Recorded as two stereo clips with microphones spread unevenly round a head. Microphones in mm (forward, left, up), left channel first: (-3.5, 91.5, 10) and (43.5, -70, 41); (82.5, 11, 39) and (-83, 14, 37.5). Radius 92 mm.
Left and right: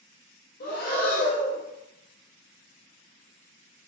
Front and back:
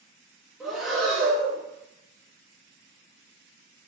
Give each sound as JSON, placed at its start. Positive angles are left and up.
{"t": 0.6, "sound": "breathing", "azimuth_deg": 90, "distance_m": 0.8}